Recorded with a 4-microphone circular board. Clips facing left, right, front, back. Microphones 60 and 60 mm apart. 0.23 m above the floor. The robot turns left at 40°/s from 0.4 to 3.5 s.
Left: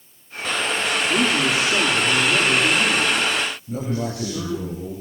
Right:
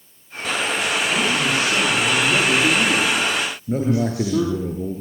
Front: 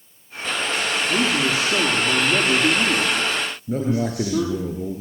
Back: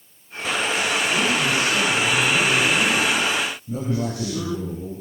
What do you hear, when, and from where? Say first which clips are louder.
1.1 s a man speaking: left 2 dB, front 3 dB; 35° left, 8.5 m; by 4.7 s 65° right, 8.5 m
3.7 s a man speaking: right 6 dB, front 3 dB; 45° right, 8.5 m